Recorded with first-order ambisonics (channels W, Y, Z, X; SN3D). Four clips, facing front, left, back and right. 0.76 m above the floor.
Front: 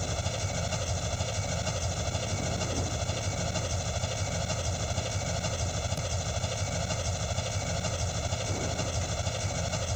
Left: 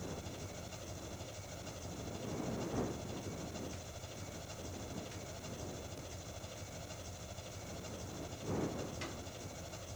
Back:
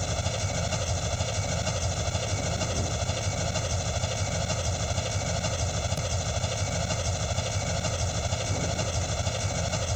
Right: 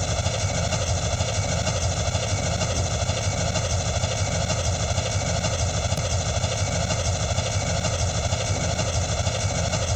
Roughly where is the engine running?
Right.